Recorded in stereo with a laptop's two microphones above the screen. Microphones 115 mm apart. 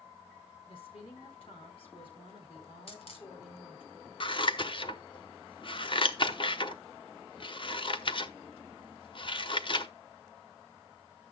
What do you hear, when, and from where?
0.7 s a woman speaking: 55° left (ahead or behind), 4 m
2.9 s a dropped coin: 55° left (ahead or behind), 1.6 m
4.2 s scissors: 45° left (ahead or behind), 0.8 m